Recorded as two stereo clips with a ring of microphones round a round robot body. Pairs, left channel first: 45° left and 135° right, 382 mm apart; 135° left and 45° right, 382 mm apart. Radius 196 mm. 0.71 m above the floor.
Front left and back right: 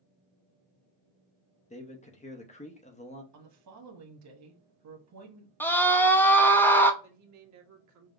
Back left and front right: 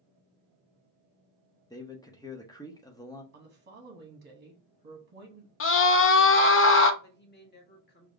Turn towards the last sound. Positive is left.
turn(degrees=-165)